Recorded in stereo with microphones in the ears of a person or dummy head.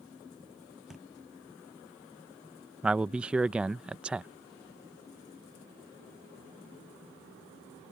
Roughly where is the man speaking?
Centre.